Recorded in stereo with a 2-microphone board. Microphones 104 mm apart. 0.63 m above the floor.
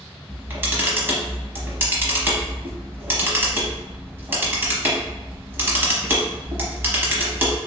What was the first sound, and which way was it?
A camera shutter, 20° right (ahead or behind).